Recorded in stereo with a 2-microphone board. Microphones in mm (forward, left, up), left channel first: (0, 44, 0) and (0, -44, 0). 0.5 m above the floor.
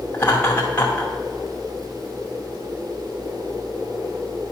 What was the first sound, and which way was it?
Laughter, 20° left (ahead or behind).